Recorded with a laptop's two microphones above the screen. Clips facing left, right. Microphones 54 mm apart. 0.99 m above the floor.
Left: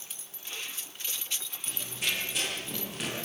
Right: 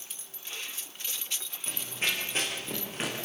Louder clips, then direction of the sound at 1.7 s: Right 2 dB; 35° right (ahead or behind).